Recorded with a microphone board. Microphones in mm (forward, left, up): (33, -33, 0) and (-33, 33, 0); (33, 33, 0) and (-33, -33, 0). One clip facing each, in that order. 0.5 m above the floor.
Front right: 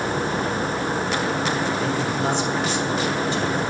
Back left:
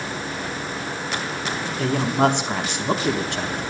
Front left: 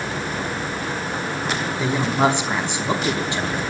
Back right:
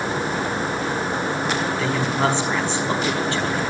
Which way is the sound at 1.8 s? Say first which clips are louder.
Back left 3 dB, front left 5 dB; 115° left.